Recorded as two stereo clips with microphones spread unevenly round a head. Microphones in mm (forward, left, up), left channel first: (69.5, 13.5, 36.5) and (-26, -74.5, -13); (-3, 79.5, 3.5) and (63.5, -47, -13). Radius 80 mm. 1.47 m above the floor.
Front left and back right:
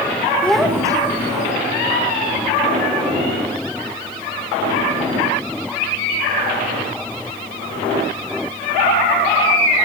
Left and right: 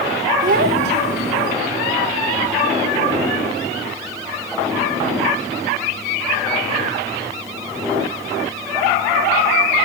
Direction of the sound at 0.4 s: 30° right.